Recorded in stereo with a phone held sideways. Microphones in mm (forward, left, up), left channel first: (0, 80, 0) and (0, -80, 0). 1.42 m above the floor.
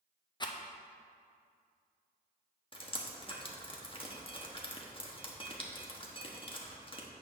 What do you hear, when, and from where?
0.4 s a rattle: 30° left (ahead or behind), 0.6 m
2.7 s dripping: 35° left (ahead or behind), 1.0 m